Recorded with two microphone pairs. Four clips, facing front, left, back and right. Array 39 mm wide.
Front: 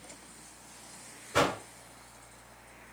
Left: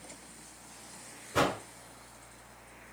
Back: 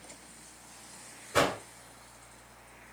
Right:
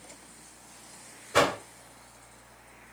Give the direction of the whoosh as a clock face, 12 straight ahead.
3 o'clock.